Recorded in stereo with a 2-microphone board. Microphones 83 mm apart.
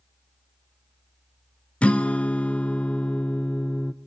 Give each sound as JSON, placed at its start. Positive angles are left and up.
{"t": 1.8, "sound": "a guitar", "side_deg": 15, "distance_m": 0.7}